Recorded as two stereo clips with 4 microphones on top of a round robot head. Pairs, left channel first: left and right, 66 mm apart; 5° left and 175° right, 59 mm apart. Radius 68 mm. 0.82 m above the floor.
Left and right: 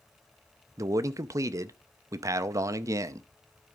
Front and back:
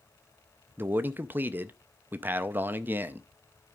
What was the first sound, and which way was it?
A man speaking, 120° right.